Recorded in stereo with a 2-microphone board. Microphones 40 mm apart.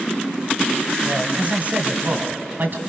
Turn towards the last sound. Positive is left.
turn(degrees=-55)  # may be behind; listen again after turning